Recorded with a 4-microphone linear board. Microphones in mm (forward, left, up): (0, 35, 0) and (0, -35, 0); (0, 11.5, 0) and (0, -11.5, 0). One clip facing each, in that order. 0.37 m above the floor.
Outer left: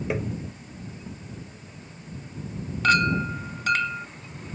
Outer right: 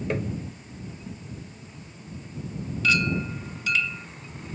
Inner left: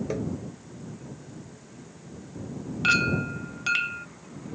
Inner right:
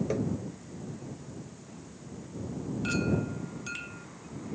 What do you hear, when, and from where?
0.1 s tapping: 5° left (ahead or behind)
2.8 s a clink: 55° left (ahead or behind)